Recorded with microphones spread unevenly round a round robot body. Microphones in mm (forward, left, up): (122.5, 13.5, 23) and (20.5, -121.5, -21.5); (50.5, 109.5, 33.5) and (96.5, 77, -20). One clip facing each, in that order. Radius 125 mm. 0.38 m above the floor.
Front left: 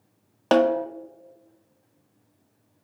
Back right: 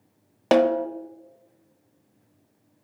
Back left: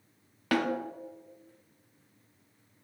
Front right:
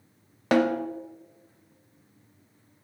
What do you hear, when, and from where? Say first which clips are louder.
0.5 s a snare drum: back right 1 dB, front right 6 dB; 55° right, 0.5 m